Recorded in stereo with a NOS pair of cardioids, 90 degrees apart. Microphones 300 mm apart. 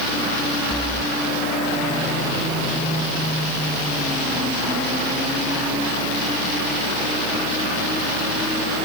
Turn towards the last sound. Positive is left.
No sound to turn to.